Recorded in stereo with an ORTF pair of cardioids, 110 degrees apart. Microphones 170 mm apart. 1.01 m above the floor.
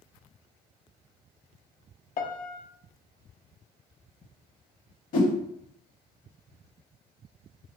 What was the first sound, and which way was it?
A piano, 55° left.